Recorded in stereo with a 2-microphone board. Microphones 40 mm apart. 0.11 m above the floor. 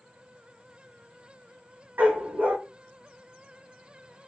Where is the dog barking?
50° right (ahead or behind), 1.4 m.